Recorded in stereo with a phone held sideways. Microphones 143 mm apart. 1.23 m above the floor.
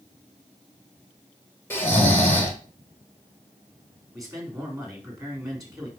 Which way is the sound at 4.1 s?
20° right (ahead or behind).